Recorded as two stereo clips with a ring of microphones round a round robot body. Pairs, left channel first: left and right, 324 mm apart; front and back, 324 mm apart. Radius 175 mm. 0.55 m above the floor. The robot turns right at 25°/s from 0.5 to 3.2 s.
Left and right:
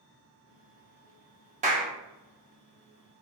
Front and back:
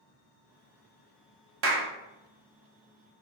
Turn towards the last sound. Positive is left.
turn(degrees=-110)